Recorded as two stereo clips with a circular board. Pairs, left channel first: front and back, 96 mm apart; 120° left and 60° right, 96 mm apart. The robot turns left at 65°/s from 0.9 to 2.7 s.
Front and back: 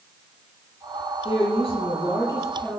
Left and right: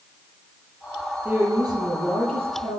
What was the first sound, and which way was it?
A woman speaking, 15° left.